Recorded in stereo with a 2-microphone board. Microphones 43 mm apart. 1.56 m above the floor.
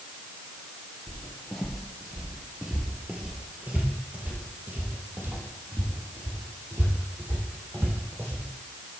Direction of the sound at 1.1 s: 15° left (ahead or behind).